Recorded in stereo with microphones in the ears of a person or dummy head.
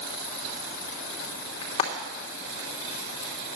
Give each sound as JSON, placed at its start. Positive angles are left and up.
{"t": 1.6, "sound": "frying", "side_deg": 25, "distance_m": 2.5}